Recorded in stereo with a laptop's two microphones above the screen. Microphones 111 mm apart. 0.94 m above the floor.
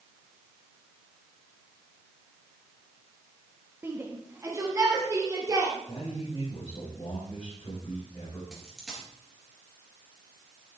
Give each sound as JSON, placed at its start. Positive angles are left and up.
{"t": 3.8, "sound": "a shout", "side_deg": -20, "distance_m": 1.1}
{"t": 5.9, "sound": "a man speaking", "side_deg": 45, "distance_m": 5.5}
{"t": 8.5, "sound": "a dropped coin", "side_deg": 0, "distance_m": 3.5}